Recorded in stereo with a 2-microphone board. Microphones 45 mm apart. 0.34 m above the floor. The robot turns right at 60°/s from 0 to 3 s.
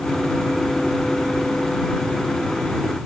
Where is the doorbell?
No doorbell in this recording.